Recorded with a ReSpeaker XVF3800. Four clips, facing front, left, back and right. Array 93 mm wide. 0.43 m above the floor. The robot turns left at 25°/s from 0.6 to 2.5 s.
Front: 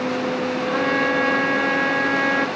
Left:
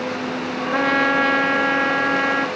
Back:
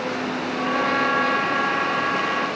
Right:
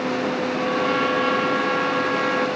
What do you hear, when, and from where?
0.7 s a trumpet: 90° left, 1.3 m; by 2.5 s 45° left, 1.3 m